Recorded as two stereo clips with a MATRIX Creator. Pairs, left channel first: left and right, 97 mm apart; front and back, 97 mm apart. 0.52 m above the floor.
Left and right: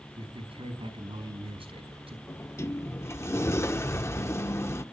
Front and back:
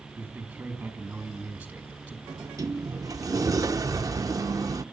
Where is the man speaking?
105° right, 5 m.